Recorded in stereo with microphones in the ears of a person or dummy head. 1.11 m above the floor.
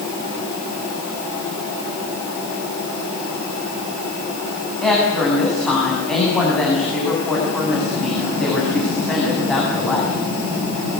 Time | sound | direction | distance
4.8 | a woman speaking | 5° left (ahead or behind) | 7 m